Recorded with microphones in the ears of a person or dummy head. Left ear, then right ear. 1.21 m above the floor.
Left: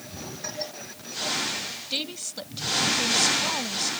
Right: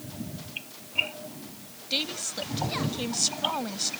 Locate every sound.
1.9 s a woman speaking: 5° right (ahead or behind)